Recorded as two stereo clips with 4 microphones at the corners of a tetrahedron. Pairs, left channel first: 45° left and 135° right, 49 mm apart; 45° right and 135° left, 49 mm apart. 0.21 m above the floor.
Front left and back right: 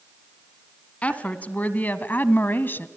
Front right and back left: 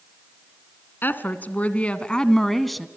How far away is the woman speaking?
About 1.9 m.